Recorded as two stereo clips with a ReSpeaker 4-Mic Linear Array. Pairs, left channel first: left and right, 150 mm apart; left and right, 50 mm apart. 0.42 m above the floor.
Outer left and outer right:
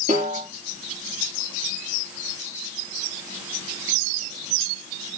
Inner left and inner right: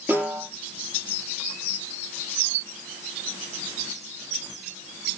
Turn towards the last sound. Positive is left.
turn(degrees=-55)  # may be behind; listen again after turning